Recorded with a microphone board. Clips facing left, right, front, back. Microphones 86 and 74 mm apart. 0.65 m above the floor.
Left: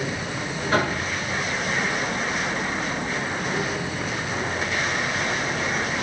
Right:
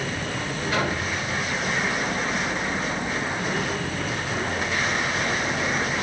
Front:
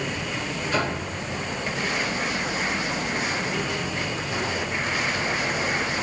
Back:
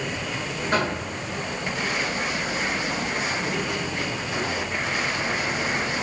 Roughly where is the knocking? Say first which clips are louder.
Left 3 dB, back 2 dB; behind left.